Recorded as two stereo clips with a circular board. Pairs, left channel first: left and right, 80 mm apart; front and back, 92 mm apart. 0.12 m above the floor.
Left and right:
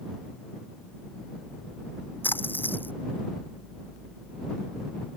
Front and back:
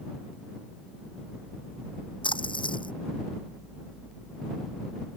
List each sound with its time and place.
2.2 s a splash: 25° left